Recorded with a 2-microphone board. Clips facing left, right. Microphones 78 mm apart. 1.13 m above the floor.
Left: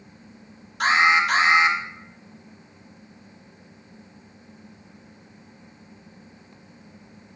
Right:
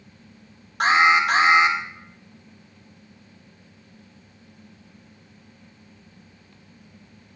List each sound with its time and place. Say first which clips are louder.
0.8 s an alarm: right 2 dB; 45° right (ahead or behind), 2 m